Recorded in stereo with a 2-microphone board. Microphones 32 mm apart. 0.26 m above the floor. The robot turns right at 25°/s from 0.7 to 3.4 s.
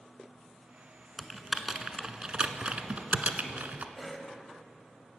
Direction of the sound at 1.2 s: Centre (ahead or behind).